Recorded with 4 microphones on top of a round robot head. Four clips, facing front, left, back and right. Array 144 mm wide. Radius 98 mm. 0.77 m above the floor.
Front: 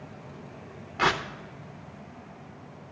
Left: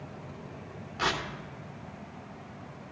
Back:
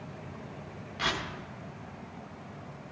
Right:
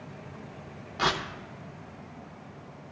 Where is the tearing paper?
20° right, 1.1 m.